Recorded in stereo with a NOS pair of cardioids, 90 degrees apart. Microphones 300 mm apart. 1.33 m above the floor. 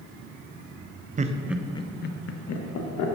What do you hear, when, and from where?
1.2 s laughter: 25° right, 0.7 m; by 3.1 s 70° left, 1.3 m